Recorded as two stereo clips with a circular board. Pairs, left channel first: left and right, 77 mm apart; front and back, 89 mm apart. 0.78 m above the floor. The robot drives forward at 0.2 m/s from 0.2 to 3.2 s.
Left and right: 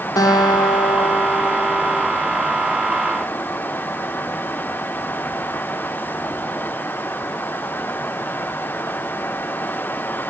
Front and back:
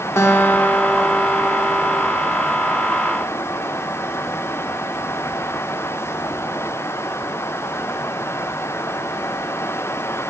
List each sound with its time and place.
0.2 s a guitar: 60° left, 0.6 m; by 2.1 s 105° left, 0.5 m